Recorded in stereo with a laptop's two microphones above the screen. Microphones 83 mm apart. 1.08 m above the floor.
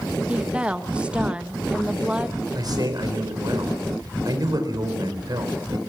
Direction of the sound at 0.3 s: 15° right (ahead or behind).